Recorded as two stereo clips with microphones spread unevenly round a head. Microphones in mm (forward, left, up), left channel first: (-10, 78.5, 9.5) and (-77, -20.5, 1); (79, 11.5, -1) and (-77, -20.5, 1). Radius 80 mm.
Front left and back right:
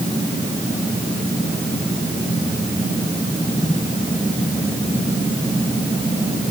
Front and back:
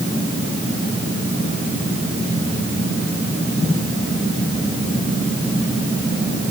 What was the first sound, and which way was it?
Only background noise.